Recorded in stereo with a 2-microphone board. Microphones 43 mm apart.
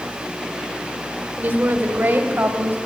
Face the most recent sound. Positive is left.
turn(degrees=-55)  # may be behind; listen again after turning